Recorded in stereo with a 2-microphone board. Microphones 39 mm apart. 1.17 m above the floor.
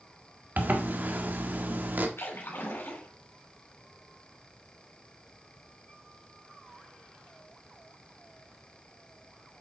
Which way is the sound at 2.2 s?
75° left (ahead or behind).